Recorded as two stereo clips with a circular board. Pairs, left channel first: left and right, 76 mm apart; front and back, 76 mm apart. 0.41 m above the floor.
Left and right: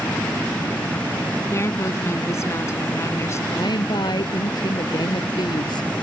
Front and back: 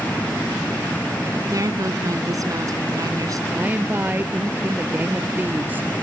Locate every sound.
1.5 s a woman speaking: 140° left
3.5 s a woman speaking: 115° left